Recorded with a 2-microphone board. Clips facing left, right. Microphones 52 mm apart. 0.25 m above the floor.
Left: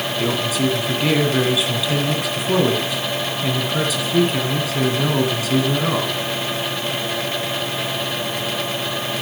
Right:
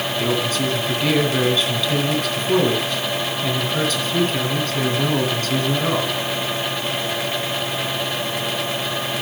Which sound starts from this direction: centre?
A man speaking, at 0.2 s.